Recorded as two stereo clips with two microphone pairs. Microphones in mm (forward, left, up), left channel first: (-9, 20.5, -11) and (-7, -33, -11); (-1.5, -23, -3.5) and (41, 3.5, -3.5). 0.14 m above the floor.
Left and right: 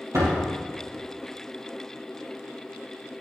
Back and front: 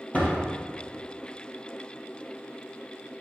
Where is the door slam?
90° right, 2.5 m.